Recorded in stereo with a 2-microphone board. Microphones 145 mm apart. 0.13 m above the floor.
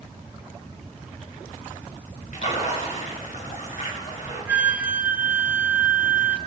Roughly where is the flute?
Centre.